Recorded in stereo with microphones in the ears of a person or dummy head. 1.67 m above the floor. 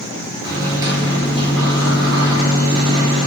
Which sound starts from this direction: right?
A microwave, at 0.4 s.